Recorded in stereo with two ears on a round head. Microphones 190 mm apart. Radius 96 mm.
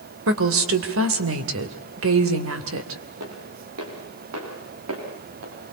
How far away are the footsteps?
About 7.5 m.